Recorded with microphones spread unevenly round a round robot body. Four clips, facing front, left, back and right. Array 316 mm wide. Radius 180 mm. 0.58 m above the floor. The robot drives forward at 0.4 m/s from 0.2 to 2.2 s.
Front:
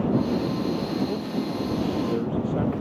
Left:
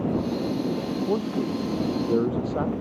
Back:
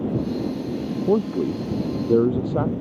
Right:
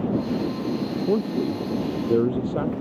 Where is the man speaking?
160° right.